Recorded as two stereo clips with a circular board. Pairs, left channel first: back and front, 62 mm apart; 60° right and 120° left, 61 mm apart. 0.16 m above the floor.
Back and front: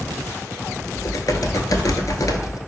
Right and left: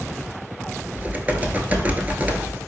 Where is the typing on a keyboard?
Straight behind, 0.6 m.